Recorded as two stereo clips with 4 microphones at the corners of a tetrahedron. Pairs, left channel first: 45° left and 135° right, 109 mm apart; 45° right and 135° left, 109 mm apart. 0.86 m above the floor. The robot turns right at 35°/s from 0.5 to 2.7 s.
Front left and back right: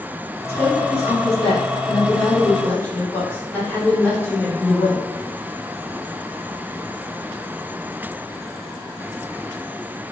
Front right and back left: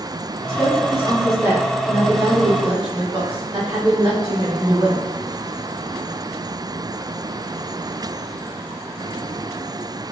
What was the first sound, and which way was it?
A woman speaking, 35° left.